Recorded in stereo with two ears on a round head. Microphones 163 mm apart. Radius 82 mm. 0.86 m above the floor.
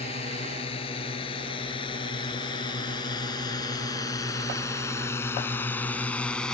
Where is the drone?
30° left (ahead or behind); by 6.5 s 5° left (ahead or behind).